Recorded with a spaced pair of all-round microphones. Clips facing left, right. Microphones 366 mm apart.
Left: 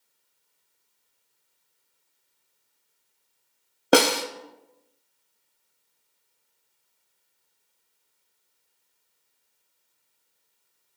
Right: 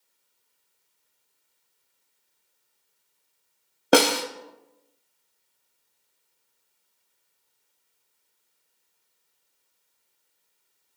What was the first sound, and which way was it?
A snare drum, centre (ahead or behind).